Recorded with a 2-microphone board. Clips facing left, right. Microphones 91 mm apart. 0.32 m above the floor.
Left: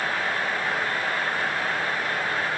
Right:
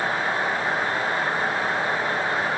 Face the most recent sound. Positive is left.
No sound to turn to.